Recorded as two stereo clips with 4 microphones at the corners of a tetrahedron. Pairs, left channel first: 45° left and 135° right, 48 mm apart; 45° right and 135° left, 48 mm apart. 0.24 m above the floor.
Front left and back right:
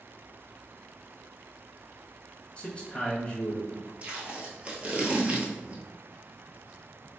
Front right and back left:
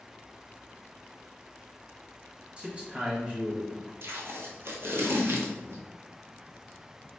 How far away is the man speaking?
About 1.1 m.